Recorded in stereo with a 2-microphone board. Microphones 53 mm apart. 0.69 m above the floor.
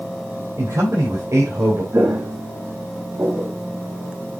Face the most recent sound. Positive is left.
turn(degrees=-65)  # may be behind; listen again after turning